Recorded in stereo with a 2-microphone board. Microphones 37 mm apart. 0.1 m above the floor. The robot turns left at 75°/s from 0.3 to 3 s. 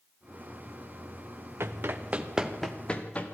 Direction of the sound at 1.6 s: 85° right.